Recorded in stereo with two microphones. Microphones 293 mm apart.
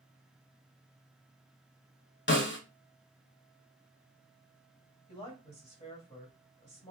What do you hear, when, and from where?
2.3 s a snare drum: 40° left (ahead or behind), 0.6 m
5.1 s a woman speaking: 25° left (ahead or behind), 1.8 m